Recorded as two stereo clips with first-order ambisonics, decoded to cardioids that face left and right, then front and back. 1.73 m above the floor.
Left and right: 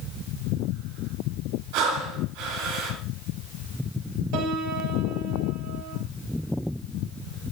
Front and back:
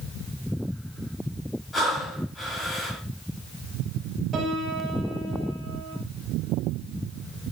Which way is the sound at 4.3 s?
115° right.